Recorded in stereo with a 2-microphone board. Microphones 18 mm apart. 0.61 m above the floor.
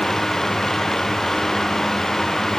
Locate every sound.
Only background noise.